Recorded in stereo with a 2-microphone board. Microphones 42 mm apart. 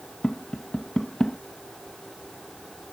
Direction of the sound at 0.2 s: 20° left (ahead or behind).